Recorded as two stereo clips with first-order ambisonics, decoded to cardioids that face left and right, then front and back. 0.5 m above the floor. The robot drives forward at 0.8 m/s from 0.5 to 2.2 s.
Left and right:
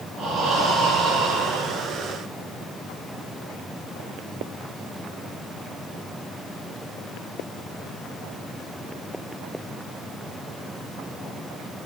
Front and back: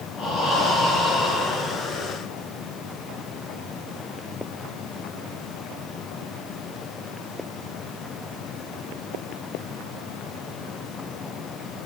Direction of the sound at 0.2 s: 55° right.